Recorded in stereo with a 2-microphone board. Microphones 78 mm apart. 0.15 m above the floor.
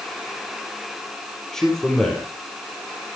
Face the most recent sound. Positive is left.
turn(degrees=5)  # may be behind; listen again after turning